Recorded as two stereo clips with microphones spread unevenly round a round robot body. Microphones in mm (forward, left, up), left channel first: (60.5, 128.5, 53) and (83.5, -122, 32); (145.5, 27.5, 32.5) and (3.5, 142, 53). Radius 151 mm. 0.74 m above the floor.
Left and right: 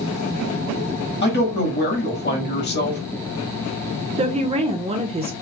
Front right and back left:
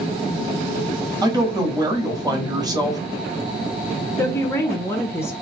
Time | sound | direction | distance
1.2 | a woman speaking | 75° left | 1.2 m
4.2 | a woman speaking | 85° right | 0.6 m